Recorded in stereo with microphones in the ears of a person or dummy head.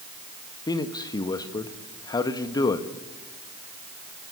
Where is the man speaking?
15° left (ahead or behind), 1.5 m.